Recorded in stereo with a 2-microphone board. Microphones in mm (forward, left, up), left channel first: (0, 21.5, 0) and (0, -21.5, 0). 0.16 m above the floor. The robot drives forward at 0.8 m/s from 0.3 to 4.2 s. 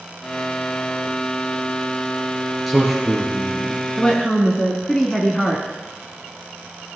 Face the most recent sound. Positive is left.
turn(degrees=15)  # may be behind; listen again after turning